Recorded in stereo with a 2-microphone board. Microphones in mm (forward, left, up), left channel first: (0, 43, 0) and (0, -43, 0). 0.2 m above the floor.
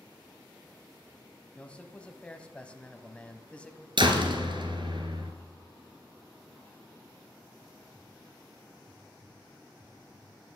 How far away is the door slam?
About 2 m.